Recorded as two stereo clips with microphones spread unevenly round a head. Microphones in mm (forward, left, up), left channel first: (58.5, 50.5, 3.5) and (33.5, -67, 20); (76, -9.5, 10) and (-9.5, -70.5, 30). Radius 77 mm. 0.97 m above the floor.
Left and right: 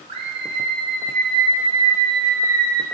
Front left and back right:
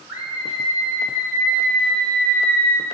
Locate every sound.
0.1 s a scream: 65° right, 4 m; by 2.9 s 35° right, 3 m